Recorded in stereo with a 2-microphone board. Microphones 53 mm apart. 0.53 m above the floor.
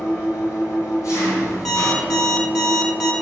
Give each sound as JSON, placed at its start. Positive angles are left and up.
{"t": 0.0, "sound": "an engine running", "side_deg": 80, "distance_m": 3.5}
{"t": 1.6, "sound": "an alarm clock", "side_deg": 5, "distance_m": 1.5}